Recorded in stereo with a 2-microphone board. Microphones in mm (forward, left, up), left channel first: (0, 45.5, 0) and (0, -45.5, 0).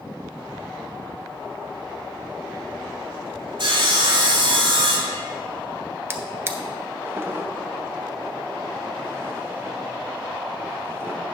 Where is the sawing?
65° right (ahead or behind), 1.5 m.